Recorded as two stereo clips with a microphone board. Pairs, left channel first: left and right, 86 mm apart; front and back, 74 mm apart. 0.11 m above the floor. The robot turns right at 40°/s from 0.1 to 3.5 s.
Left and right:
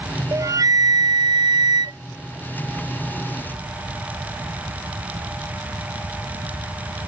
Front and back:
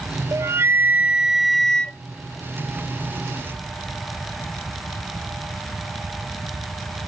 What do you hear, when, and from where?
0.3 s a flute: 135° right; by 2.0 s 70° right